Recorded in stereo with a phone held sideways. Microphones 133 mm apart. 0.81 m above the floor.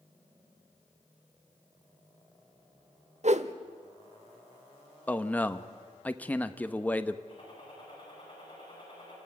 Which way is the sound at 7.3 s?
35° left (ahead or behind).